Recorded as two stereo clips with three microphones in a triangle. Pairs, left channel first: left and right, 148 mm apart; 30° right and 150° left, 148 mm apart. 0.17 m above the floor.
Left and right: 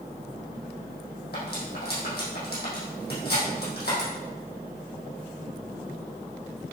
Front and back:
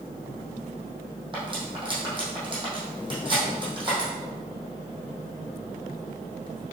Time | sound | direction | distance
1.3 | cutlery clinking | 90° left | 4 m